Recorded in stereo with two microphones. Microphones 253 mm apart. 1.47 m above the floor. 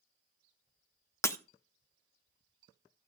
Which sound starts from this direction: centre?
Breaking glass, at 1.2 s.